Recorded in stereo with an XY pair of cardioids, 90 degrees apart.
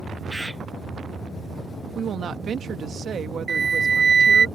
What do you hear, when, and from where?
0.3 s a bird: 10° right
1.9 s a woman speaking: 60° right
3.5 s a flute: 45° right